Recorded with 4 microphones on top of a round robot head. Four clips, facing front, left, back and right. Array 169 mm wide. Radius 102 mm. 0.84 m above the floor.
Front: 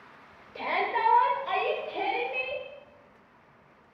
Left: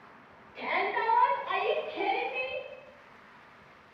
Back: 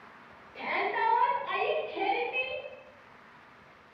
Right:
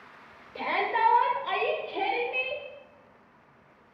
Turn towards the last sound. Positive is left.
turn(degrees=-100)